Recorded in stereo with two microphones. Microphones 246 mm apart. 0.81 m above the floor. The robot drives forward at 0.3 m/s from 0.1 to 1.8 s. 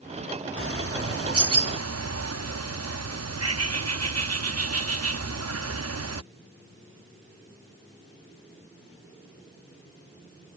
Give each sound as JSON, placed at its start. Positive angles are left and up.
{"t": 0.6, "sound": "a bird", "side_deg": -60}